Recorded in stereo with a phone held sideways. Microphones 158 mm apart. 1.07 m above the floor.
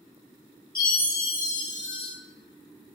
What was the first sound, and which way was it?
A chime, 70° left (ahead or behind).